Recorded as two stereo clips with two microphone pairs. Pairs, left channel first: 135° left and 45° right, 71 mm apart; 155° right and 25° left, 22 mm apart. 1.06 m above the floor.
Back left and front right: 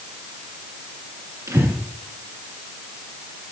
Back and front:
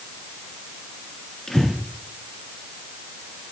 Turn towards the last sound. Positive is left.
turn(degrees=-90)